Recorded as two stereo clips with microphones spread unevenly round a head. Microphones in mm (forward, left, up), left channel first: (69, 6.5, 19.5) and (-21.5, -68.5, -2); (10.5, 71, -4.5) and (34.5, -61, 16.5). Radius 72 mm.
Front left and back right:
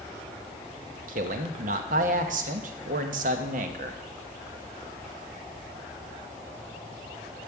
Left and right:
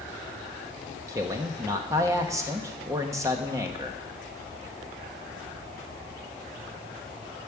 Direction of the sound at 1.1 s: 150° right.